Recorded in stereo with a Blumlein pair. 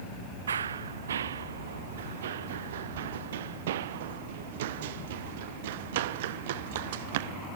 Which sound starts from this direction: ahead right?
Running footsteps, at 0.5 s.